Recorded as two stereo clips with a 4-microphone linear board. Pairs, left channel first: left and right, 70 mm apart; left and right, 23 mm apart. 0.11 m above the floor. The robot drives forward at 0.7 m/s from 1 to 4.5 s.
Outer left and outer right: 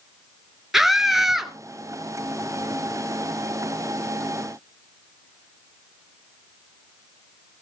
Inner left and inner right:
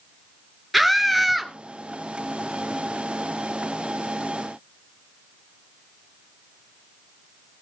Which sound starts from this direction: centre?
A scream, at 0.7 s.